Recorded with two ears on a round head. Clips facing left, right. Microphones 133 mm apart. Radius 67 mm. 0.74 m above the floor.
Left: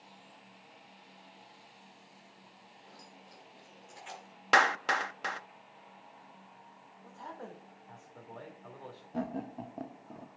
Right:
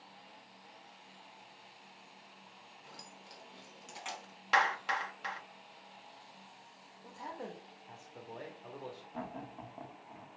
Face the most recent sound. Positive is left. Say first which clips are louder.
# left 9 dB
turn(degrees=45)  # may be behind; listen again after turning